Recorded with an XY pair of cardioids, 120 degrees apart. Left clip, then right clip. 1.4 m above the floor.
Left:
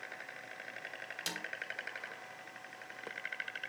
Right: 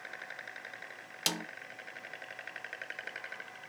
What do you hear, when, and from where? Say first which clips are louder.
1.3 s a snare drum: right 7 dB; 50° right, 0.6 m